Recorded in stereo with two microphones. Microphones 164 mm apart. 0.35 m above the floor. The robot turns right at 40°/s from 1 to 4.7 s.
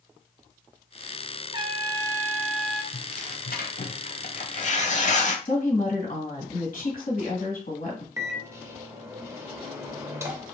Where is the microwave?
20° right (ahead or behind), 0.7 m.